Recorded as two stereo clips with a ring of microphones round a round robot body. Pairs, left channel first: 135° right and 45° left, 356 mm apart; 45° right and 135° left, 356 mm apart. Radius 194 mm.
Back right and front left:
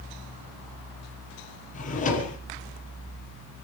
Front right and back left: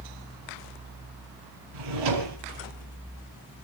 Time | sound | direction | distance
1.7 | a drawer | 155° left | 4.5 m